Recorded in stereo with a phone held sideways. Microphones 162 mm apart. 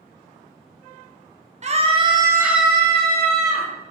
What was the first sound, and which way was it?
A scream, 45° right (ahead or behind).